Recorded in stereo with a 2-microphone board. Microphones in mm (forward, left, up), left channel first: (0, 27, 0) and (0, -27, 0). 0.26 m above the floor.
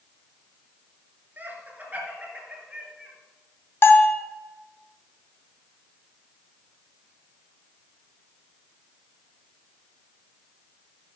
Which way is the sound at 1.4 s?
35° right (ahead or behind).